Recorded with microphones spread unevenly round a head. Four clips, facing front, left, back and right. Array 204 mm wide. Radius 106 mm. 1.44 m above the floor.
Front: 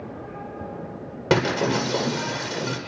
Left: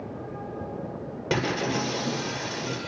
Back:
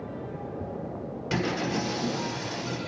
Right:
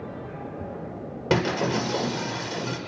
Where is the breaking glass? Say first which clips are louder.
Right 3 dB, front 8 dB; 15° right, 9.5 m.